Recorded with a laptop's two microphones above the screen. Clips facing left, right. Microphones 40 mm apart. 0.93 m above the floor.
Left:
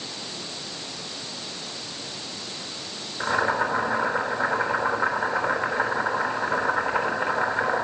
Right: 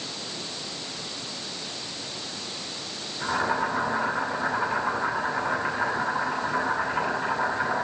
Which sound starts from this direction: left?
Boiling, at 3.2 s.